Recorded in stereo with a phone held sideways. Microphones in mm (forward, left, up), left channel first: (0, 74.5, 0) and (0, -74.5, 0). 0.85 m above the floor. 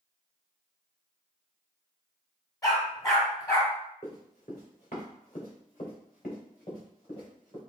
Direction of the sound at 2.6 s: 25° left (ahead or behind).